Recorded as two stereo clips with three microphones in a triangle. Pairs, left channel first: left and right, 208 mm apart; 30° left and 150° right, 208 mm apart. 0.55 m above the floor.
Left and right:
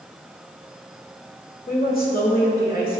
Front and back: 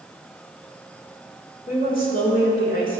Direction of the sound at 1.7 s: 65° left.